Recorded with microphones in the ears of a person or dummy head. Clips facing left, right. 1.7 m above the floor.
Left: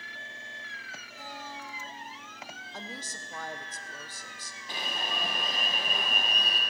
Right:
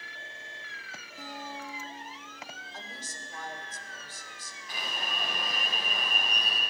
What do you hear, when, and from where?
1.2 s a guitar: 60° right (ahead or behind), 4 m
2.7 s a woman speaking: 60° left (ahead or behind), 1.1 m
4.7 s an alarm: 25° left (ahead or behind), 1.7 m